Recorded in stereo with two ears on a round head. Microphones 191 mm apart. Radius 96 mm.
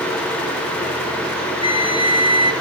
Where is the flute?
30° right (ahead or behind), 1.3 m.